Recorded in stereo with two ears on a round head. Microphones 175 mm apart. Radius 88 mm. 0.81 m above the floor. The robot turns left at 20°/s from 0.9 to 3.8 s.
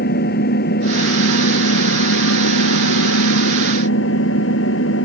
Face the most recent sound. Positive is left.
turn(degrees=65)